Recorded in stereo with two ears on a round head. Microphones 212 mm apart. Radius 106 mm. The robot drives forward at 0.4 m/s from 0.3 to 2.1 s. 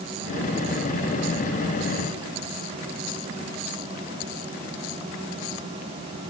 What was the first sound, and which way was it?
Only background noise.